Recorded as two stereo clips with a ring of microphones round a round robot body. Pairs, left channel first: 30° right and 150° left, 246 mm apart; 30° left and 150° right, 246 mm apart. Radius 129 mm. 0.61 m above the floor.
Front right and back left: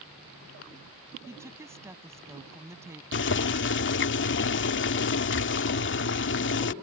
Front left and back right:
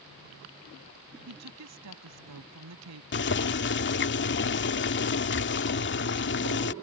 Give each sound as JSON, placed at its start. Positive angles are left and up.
{"t": 1.3, "sound": "a woman speaking", "azimuth_deg": -130}
{"t": 3.1, "sound": "boiling", "azimuth_deg": 0}